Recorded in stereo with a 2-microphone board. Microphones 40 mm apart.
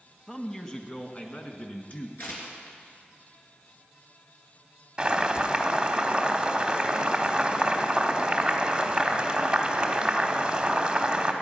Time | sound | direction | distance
0.3 | a man speaking | 15° left (ahead or behind) | 1.3 m
2.2 | tearing paper | 55° left (ahead or behind) | 3.5 m
5.0 | boiling | 20° right (ahead or behind) | 1.2 m